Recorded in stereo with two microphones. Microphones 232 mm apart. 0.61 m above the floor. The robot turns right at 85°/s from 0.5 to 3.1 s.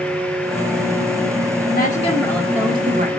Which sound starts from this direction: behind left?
A woman speaking, at 1.7 s.